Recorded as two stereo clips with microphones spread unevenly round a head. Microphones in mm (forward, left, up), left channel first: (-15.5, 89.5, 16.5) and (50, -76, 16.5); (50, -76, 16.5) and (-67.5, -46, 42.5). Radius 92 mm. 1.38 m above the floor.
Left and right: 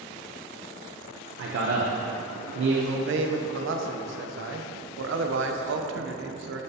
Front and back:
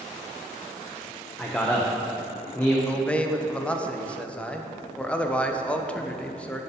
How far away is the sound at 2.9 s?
About 0.7 m.